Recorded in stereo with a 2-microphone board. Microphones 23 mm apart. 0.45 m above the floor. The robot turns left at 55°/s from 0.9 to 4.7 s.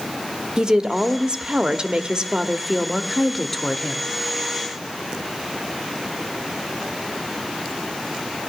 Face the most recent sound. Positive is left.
turn(degrees=95)